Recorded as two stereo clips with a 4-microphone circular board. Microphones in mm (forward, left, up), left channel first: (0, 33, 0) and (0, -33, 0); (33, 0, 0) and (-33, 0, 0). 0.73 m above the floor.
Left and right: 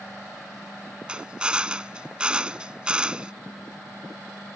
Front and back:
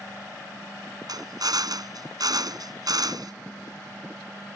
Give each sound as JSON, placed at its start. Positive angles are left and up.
{"t": 1.1, "sound": "a drill", "azimuth_deg": -165}